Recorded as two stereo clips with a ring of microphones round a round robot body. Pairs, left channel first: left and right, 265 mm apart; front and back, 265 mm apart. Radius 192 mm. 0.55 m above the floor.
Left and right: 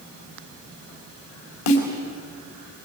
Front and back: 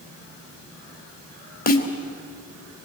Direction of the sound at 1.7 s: 55° left.